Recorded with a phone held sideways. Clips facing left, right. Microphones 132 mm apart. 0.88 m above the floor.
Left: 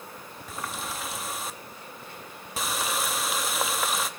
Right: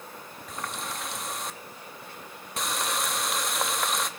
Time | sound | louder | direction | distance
0.5 | a running tap | even | centre (ahead or behind) | 0.7 m